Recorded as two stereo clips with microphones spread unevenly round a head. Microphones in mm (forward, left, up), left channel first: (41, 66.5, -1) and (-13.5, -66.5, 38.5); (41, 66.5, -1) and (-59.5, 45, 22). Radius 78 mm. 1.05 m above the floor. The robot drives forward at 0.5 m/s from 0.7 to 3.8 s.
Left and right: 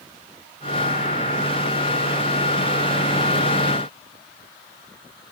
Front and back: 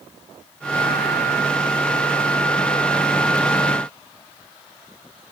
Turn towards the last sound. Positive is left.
No sound to turn to.